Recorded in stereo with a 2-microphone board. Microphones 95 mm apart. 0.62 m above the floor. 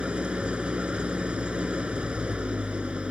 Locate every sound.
0.0 s an engine running: 10° right (ahead or behind)